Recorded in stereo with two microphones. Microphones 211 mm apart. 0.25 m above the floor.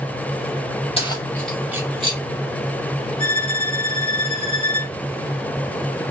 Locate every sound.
1.0 s keys jangling: 25° left (ahead or behind), 0.7 m; by 2.2 s 30° right (ahead or behind), 0.8 m
3.2 s a violin: 25° left (ahead or behind), 1.1 m